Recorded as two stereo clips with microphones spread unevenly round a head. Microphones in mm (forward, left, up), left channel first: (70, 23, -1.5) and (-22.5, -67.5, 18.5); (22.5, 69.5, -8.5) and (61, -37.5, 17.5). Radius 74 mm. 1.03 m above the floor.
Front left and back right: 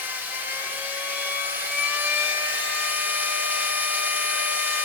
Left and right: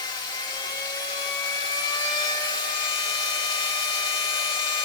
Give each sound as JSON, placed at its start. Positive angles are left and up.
{"t": 0.0, "sound": "a machine running", "azimuth_deg": 165, "distance_m": 0.7}